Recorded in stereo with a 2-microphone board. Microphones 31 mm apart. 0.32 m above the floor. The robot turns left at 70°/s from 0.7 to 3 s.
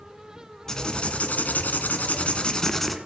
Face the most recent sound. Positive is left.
turn(degrees=0)